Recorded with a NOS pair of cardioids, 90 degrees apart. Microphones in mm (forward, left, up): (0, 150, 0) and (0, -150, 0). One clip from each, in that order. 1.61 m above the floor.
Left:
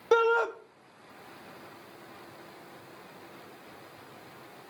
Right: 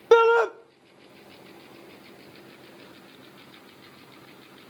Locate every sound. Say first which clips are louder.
0.1 s a shout: right 7 dB; 25° right, 0.7 m